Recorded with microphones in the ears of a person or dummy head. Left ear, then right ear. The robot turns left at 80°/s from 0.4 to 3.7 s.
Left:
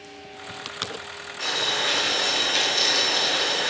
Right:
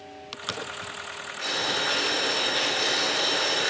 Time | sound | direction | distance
1.4 | boiling | 160° left | 3 m